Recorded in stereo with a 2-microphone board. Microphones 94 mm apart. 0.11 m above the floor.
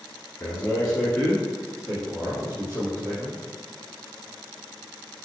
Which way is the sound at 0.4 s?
25° left (ahead or behind).